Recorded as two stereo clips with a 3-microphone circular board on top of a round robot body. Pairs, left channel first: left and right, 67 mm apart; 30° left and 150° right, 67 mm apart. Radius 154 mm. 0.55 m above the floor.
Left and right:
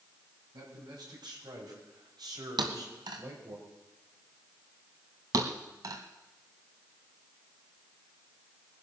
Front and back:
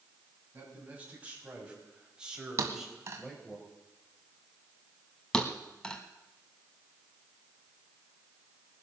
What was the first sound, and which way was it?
A man speaking, 85° right.